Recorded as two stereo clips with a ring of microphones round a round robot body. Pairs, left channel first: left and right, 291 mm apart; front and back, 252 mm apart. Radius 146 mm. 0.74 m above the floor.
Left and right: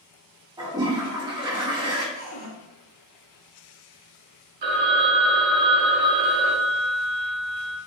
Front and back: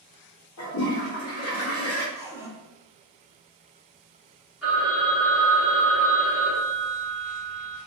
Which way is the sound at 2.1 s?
115° left.